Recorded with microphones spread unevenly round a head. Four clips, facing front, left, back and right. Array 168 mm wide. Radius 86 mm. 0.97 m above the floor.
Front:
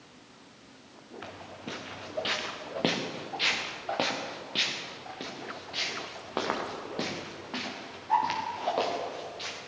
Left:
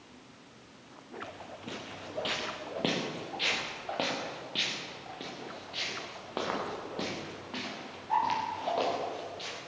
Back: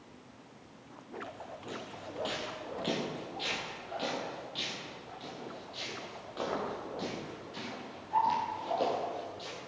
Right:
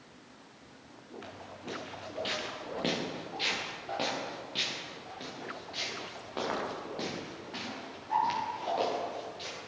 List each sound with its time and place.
1.2 s footsteps: 15° left, 4 m; by 9.6 s 20° left, 10 m